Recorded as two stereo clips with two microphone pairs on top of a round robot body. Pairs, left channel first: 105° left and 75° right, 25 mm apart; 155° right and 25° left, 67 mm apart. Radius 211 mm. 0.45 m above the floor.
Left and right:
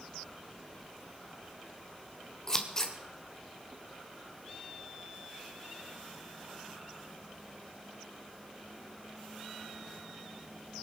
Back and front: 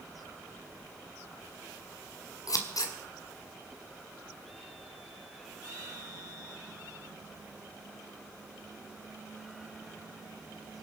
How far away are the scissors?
About 2 m.